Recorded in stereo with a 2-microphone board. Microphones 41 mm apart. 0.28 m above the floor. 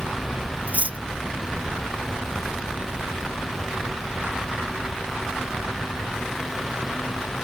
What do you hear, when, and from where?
0.7 s cutlery clinking: 40° right (ahead or behind)